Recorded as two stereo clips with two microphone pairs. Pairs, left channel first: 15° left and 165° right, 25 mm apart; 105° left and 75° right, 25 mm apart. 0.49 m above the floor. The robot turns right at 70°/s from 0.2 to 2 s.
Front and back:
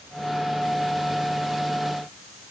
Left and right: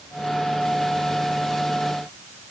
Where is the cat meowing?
I don't hear a cat meowing.